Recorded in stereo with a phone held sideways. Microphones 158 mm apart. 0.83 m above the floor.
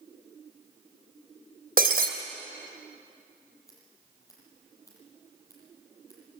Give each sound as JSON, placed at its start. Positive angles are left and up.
{"t": 1.8, "sound": "breaking glass", "side_deg": -65, "distance_m": 2.5}
{"t": 3.7, "sound": "scissors", "side_deg": 15, "distance_m": 8.0}